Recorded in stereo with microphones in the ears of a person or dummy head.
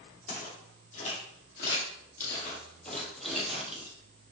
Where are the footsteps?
40° left (ahead or behind), 1.8 m; by 3.9 s 10° right (ahead or behind), 1.7 m.